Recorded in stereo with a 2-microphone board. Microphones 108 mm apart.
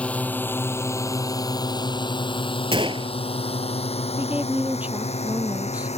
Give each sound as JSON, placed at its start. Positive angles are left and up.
{"t": 0.0, "sound": "a drone", "side_deg": 10}
{"t": 2.7, "sound": "a gunshot", "side_deg": -55}
{"t": 4.2, "sound": "a woman speaking", "side_deg": -10}